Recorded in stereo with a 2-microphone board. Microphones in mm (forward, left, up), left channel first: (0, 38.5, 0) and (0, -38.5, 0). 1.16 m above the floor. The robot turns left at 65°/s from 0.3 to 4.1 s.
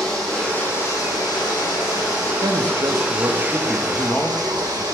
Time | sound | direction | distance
0.0 | running water | 175° left | 6.5 m
2.4 | a man speaking | 95° right | 1.5 m